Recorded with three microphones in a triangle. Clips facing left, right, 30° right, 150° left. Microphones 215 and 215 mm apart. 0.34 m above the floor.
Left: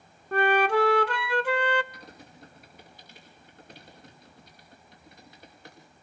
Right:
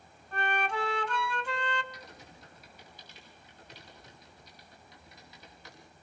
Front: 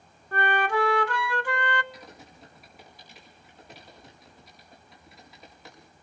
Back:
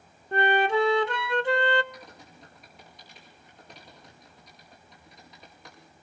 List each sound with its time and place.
0.3 s a flute: 90° left, 0.5 m
1.9 s typing on a keyboard: 55° left, 5.5 m